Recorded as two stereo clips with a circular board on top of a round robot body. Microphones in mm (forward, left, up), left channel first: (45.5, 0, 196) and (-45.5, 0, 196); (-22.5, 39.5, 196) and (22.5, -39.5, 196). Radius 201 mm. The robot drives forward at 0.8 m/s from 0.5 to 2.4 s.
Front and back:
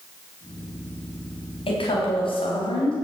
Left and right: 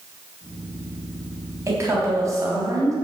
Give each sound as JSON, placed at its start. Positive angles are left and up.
{"t": 1.7, "sound": "a woman speaking", "azimuth_deg": -5, "distance_m": 4.0}